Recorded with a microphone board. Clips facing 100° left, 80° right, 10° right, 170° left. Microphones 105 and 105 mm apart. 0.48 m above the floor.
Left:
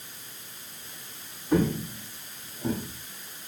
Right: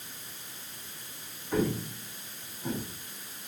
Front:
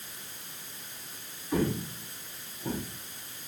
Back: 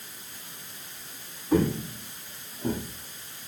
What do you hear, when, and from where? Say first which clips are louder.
1.5 s footsteps: left 4 dB, back 5 dB; 130° left, 4.5 m; by 2.8 s 145° left, 3.5 m